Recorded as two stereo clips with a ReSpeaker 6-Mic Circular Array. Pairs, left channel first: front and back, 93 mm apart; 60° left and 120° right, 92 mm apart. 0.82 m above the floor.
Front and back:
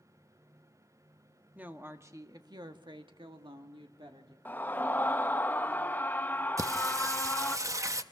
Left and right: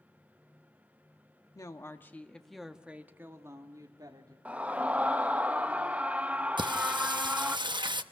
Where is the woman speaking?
110° left, 1.5 m; by 4.3 s 160° right, 2 m.